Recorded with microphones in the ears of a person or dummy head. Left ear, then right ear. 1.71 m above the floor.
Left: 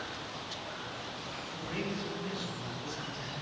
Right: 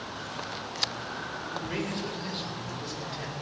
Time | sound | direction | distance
1.5 | a man speaking | 40° right (ahead or behind) | 4 m